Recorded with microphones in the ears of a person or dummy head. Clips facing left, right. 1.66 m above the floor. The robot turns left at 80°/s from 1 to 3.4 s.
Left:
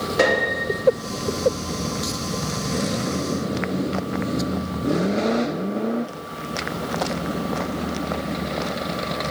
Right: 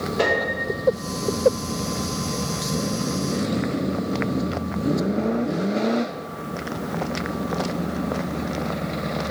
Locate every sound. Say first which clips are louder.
0.2 s a piano: left 3 dB; 80° left, 2.5 m